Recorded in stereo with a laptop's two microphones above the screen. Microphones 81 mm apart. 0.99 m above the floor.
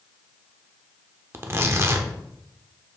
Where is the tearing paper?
35° right (ahead or behind), 0.7 m.